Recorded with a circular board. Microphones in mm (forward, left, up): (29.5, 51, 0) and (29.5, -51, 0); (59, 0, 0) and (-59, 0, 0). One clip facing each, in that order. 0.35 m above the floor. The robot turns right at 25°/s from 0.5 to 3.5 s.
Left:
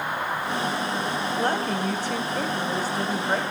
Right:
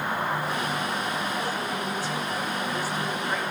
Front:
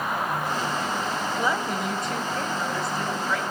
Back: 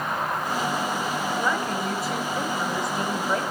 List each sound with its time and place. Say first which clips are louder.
1.4 s a woman speaking: left 5 dB, front 1 dB; 80° left, 1.9 m; by 3.4 s 130° left, 1.9 m